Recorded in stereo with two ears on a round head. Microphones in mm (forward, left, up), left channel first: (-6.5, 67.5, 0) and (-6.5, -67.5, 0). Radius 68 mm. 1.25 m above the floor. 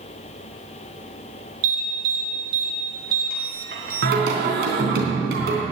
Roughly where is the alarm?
Right.